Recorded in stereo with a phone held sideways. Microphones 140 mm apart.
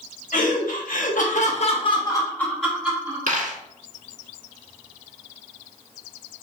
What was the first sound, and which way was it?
Laughter, 75° left (ahead or behind).